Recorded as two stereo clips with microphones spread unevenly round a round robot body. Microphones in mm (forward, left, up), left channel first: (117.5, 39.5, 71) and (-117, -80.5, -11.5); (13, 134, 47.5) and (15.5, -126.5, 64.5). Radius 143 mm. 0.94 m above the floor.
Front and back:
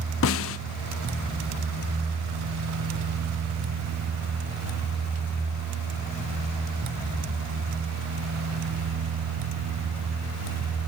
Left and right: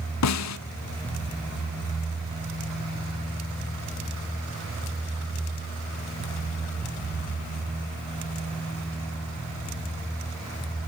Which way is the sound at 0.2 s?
75° left.